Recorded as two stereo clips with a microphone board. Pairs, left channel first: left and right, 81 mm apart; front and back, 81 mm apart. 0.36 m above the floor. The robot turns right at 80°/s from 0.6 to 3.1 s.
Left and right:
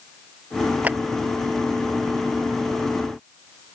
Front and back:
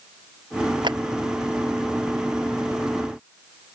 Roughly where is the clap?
Behind.